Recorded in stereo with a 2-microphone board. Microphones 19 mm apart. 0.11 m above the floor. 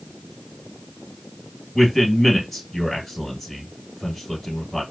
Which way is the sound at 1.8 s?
10° left (ahead or behind).